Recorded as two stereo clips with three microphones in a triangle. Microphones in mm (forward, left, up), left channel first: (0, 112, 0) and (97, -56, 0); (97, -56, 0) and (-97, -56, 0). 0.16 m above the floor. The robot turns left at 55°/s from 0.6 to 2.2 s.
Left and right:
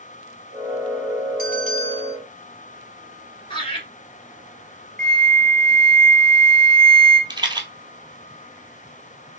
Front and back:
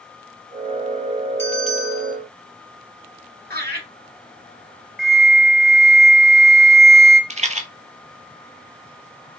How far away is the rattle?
About 0.7 m.